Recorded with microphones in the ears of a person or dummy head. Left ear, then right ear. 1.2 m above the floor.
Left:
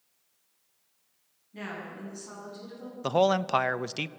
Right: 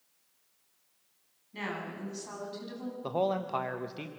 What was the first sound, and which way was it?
A woman speaking, 45° right (ahead or behind).